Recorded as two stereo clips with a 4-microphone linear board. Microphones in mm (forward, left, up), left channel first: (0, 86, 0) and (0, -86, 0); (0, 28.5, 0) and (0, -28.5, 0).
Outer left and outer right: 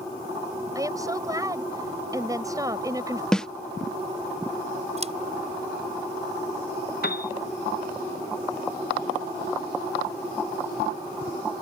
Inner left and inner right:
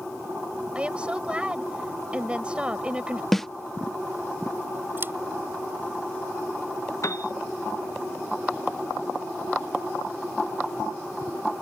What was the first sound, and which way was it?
A woman speaking, 20° right (ahead or behind).